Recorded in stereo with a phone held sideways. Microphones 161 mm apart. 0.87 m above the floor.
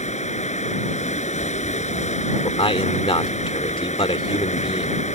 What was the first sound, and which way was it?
Running water, 50° left (ahead or behind).